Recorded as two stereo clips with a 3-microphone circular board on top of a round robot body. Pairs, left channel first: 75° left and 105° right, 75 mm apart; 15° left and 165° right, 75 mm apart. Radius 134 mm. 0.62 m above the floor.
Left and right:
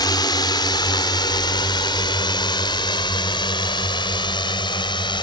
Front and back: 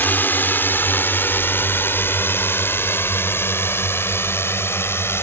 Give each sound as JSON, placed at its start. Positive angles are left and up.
{"t": 0.0, "sound": "a drone", "azimuth_deg": 75}